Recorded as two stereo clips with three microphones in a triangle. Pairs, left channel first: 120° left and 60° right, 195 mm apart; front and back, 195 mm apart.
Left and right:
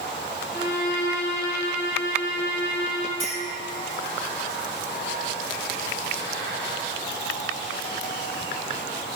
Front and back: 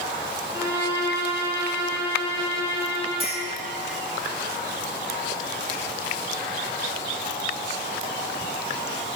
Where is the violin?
110° left, 2.5 m.